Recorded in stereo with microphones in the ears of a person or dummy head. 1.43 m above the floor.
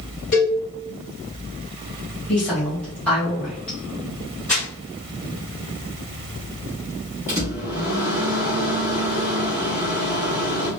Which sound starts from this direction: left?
A cowbell, at 0.3 s.